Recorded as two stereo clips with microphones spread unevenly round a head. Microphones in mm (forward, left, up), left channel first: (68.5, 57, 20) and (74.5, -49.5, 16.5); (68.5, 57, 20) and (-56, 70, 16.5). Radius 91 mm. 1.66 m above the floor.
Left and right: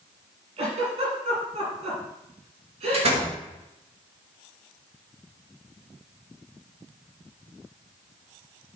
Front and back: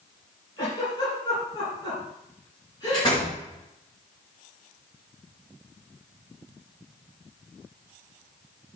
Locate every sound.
0.6 s a giggle: 75° right, 7.5 m
2.9 s a door slam: 70° right, 5 m